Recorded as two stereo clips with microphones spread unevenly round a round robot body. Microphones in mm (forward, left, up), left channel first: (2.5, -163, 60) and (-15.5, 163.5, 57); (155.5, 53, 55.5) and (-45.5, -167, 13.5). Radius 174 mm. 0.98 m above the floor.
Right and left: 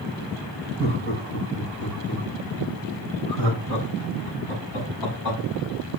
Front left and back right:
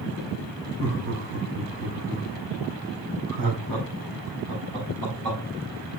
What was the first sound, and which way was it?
Laughter, 145° right.